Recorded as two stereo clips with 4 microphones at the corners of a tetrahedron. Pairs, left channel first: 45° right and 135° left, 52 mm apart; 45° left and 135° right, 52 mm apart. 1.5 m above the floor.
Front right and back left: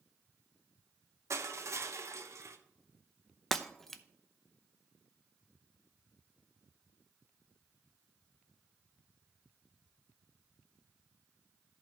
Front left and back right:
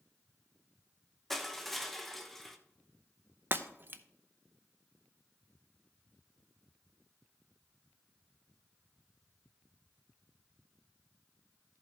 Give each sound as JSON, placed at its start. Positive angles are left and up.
{"t": 1.3, "sound": "crushing", "azimuth_deg": 130, "distance_m": 1.0}
{"t": 3.5, "sound": "breaking glass", "azimuth_deg": -125, "distance_m": 0.7}